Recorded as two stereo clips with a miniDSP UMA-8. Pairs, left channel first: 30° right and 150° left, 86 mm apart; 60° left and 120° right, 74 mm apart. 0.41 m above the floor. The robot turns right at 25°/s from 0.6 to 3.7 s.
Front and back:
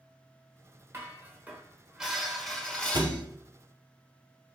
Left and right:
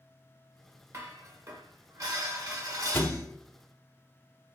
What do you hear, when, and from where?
0.9 s dishes clattering: 160° right, 0.7 m; by 3.2 s 100° right, 0.7 m
2.9 s a thud: 120° left, 0.5 m; by 3.3 s 130° left, 0.5 m